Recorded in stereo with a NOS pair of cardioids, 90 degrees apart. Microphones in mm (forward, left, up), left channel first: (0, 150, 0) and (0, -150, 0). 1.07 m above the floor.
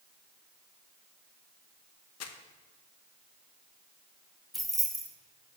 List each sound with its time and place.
2.2 s crumpling: 60° left, 1.0 m
4.5 s keys jangling: straight ahead, 1.4 m